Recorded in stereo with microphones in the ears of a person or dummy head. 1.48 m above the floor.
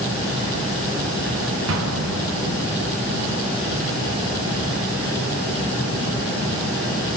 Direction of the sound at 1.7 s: 80° right.